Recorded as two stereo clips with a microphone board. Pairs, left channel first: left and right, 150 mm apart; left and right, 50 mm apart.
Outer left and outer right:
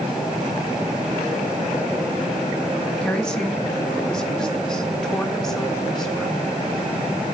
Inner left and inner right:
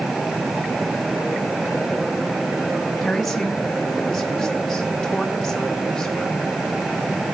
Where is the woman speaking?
5° left (ahead or behind), 1.8 m.